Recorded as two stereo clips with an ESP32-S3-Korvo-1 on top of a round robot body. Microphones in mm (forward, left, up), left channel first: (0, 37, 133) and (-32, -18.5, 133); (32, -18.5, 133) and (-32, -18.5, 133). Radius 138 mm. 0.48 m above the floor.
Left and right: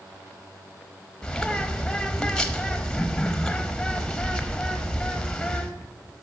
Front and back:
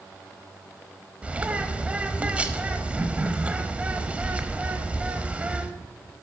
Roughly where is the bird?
Behind left.